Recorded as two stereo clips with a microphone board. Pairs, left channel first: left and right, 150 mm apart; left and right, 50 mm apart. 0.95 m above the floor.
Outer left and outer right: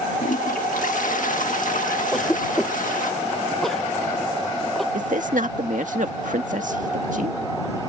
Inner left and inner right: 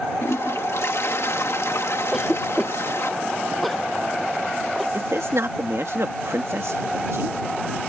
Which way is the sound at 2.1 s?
Centre (ahead or behind).